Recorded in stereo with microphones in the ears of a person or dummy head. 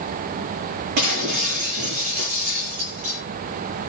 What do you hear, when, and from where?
1.0 s breaking glass: 50° right (ahead or behind), 9.5 m